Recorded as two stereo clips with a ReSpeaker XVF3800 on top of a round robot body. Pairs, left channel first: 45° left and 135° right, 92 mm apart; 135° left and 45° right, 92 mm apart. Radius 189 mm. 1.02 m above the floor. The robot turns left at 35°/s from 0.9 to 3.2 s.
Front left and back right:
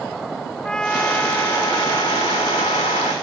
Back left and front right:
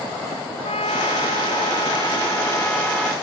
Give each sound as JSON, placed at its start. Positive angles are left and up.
{"t": 0.6, "sound": "a trumpet", "azimuth_deg": 125}